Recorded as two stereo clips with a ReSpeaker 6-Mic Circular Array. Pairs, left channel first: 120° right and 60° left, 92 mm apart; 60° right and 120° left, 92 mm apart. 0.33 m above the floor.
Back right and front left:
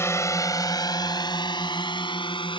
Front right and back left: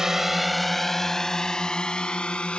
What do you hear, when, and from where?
0.0 s a drone: 160° right; by 2.6 s 140° right